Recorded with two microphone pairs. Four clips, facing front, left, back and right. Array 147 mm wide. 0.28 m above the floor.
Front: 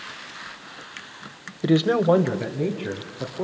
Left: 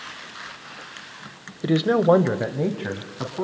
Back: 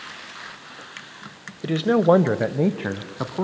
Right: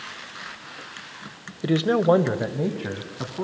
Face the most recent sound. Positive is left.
turn(degrees=170)